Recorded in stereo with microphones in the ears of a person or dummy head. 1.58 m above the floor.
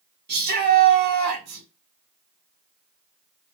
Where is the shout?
45° right (ahead or behind), 1.4 m.